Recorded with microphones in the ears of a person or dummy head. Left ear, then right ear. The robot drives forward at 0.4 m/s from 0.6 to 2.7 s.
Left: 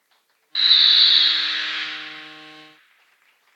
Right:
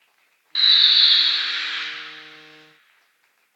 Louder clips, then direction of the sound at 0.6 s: Even; 5° right (ahead or behind).